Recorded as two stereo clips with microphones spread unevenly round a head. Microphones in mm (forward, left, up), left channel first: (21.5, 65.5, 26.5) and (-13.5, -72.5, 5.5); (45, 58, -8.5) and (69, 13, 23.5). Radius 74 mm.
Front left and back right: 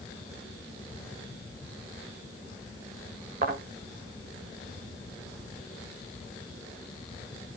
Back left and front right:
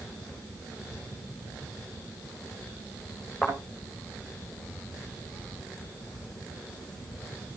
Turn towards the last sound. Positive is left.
turn(degrees=-140)